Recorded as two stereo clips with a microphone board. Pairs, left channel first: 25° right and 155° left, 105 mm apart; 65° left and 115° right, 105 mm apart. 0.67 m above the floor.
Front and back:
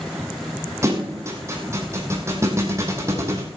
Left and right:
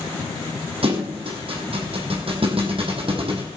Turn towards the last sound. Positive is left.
turn(degrees=-140)